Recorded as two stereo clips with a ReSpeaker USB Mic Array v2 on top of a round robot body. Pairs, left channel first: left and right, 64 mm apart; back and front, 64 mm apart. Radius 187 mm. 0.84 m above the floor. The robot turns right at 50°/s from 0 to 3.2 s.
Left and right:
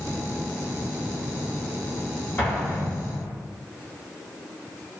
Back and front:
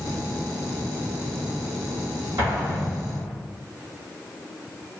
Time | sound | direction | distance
2.4 | an explosion | 30° left | 1.8 m